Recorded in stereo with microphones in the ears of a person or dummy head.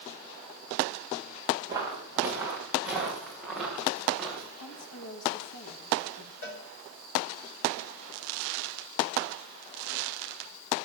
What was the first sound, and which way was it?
Footsteps, 15° right (ahead or behind).